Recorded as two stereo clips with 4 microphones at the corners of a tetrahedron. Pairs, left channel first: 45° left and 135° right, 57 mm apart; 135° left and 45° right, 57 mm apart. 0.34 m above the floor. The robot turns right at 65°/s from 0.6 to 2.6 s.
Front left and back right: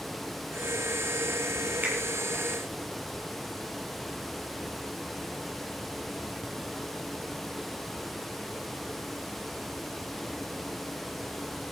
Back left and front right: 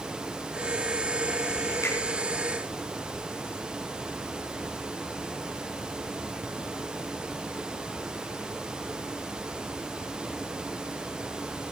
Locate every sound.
1.8 s a finger snap: 165° left, 7.5 m; by 1.9 s 170° left, 7.5 m